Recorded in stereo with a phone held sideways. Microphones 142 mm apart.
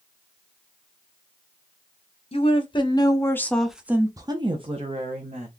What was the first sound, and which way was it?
A woman speaking, 45° left (ahead or behind).